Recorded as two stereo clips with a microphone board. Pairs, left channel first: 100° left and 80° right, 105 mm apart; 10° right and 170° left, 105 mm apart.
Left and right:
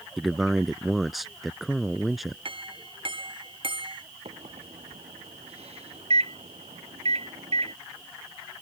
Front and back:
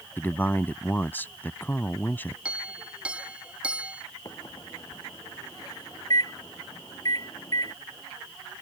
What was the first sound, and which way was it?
A man speaking, 10° left.